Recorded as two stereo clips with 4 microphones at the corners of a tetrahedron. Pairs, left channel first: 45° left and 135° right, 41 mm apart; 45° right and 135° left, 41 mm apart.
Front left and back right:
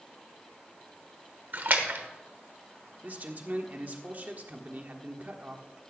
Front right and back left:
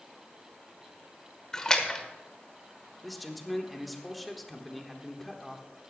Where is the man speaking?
130° right, 1.3 m.